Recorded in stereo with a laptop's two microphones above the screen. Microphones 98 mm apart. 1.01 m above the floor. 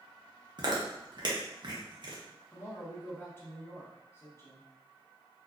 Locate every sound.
0.6 s chewing: 45° right (ahead or behind), 0.8 m
2.5 s a woman speaking: 25° left (ahead or behind), 0.9 m